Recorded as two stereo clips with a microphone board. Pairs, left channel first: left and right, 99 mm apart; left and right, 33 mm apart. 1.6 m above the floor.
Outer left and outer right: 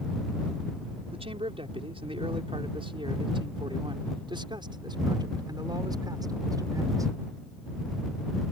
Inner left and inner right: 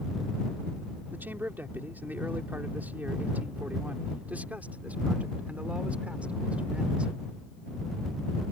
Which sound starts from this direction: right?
A man speaking, at 1.1 s.